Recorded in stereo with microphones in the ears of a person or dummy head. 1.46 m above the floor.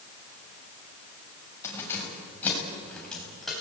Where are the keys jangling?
10° left (ahead or behind), 7 m; by 3.6 s 5° right (ahead or behind), 8.5 m.